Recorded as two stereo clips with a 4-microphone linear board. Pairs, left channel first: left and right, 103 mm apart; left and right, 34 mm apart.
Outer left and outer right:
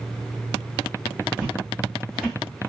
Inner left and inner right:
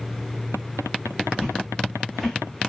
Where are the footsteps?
5° right (ahead or behind), 1.7 m; by 2.7 s centre (ahead or behind), 1.4 m.